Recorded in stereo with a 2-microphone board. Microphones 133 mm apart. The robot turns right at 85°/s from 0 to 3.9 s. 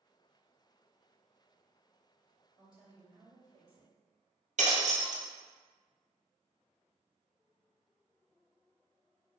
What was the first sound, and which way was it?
A woman speaking, 175° left.